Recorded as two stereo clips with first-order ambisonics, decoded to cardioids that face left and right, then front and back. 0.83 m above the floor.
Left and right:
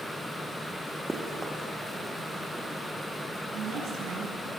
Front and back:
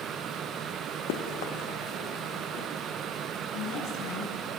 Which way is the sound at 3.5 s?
35° right.